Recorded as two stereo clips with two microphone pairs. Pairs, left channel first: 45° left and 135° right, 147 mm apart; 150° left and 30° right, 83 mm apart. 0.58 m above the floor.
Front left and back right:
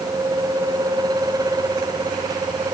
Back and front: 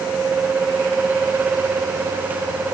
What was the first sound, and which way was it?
Only background noise.